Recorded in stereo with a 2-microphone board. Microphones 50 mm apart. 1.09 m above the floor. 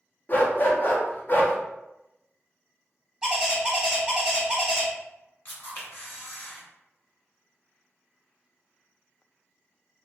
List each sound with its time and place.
0.3 s a dog barking: 40° left (ahead or behind), 0.6 m
3.2 s a bird: 15° right (ahead or behind), 1.1 m
5.5 s a camera shutter: 40° left (ahead or behind), 1.6 m